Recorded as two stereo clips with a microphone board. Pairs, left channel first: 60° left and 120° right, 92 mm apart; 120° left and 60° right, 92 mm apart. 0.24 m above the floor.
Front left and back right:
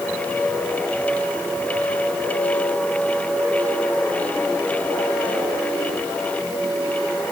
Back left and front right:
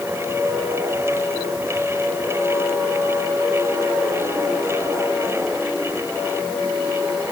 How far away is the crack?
I don't hear a crack.